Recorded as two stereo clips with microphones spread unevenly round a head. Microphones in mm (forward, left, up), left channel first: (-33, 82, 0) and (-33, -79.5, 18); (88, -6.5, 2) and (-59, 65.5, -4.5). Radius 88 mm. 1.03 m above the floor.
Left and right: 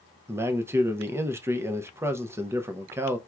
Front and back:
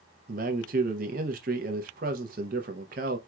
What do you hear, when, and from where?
0.3 s a man speaking: 170° right, 0.7 m